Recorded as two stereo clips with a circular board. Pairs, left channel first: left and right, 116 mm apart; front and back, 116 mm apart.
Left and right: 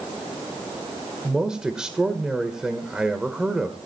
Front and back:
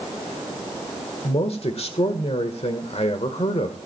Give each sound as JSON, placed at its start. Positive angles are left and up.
{"t": 1.2, "sound": "a man speaking", "azimuth_deg": -5, "distance_m": 1.3}